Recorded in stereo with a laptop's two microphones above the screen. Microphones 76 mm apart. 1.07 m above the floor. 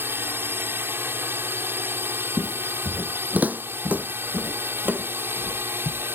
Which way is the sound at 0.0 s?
30° right (ahead or behind).